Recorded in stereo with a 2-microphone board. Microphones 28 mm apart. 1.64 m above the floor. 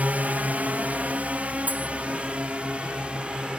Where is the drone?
65° right (ahead or behind); by 3.6 s 35° right (ahead or behind).